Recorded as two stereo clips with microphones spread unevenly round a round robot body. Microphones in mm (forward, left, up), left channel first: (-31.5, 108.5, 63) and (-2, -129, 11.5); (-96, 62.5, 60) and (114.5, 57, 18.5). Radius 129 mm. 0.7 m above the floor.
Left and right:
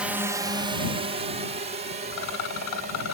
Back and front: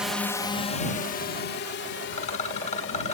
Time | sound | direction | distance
0.0 | a drone | 45° right | ?
2.1 | a rattle | 115° left | ?